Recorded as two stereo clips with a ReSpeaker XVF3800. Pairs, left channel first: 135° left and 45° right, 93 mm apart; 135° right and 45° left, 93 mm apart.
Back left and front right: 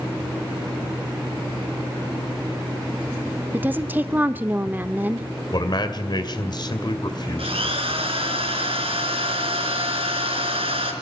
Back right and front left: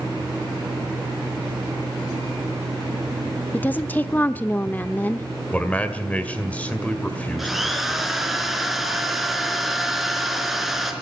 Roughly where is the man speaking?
Behind left.